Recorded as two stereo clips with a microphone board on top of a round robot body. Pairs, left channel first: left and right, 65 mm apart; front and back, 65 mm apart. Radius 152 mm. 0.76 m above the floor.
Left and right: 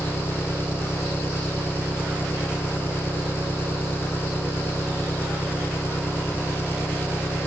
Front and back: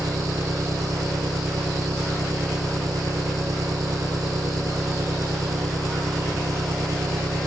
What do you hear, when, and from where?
0.0 s an engine running: 145° left